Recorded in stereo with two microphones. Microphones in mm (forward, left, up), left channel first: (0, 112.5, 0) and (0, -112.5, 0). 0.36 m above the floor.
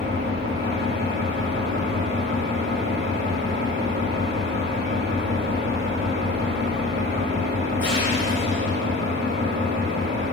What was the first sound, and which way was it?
An engine running, 60° right (ahead or behind).